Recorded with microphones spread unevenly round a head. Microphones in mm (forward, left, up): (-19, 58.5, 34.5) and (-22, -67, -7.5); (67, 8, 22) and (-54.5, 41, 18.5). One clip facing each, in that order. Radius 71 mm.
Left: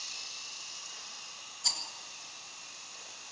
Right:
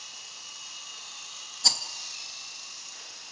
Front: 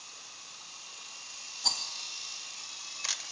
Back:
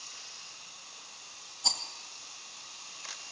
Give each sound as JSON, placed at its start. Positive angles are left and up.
{"t": 1.6, "sound": "a rattle", "azimuth_deg": -110, "distance_m": 2.0}